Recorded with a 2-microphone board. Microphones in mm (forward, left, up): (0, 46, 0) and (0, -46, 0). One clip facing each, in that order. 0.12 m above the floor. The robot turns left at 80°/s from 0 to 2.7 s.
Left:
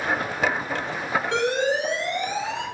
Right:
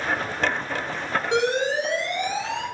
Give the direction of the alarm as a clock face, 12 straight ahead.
5 o'clock.